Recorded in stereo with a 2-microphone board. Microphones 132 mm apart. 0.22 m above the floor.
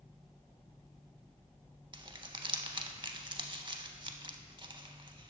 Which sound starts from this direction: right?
Crumpling, at 1.9 s.